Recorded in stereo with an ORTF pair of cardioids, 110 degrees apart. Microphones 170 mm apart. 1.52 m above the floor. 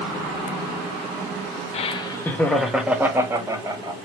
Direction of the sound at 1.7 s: 40° left.